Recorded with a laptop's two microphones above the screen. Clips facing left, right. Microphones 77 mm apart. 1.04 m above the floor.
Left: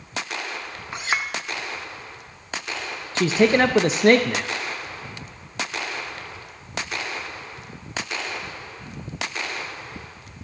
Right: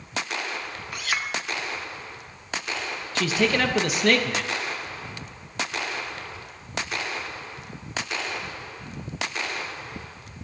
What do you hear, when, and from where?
0.9 s a clink: 25° left (ahead or behind), 0.7 m
3.1 s a man speaking: 30° left (ahead or behind), 0.6 m